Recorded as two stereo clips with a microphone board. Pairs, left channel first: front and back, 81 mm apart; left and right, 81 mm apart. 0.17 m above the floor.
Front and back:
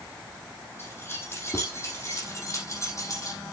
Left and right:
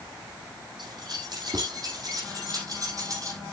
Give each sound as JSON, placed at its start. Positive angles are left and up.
{"t": 0.8, "sound": "keys jangling", "azimuth_deg": -65, "distance_m": 5.5}